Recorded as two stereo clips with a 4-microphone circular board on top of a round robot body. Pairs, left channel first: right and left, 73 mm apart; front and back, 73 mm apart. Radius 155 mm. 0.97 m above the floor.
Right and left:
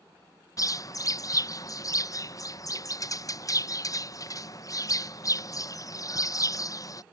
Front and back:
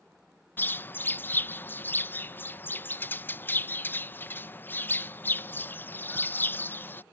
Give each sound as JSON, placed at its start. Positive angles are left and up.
{"t": 0.6, "sound": "a bird", "azimuth_deg": -60}